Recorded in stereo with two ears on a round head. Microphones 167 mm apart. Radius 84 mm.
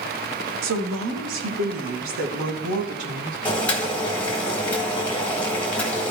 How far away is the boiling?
About 2.5 m.